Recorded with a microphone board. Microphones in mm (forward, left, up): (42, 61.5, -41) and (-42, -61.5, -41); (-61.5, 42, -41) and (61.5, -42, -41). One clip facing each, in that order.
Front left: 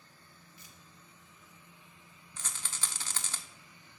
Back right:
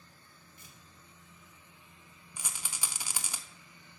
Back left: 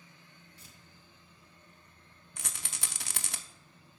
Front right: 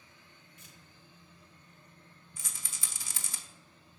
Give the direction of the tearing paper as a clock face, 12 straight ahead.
5 o'clock.